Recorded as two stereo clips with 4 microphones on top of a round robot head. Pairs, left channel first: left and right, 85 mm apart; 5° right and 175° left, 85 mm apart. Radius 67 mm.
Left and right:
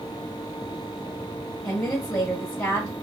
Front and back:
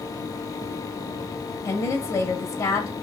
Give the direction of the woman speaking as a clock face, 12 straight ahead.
11 o'clock.